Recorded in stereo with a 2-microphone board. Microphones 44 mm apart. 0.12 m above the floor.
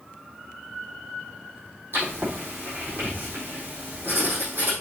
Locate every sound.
1.9 s writing: 55° right (ahead or behind), 3.5 m